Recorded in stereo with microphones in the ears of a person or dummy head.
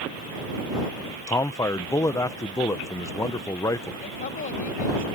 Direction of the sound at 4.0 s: 40° left (ahead or behind).